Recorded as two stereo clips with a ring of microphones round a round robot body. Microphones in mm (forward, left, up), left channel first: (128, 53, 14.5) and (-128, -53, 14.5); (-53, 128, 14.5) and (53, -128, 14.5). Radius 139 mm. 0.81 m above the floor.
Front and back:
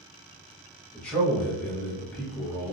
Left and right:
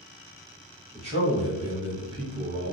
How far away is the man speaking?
About 0.8 m.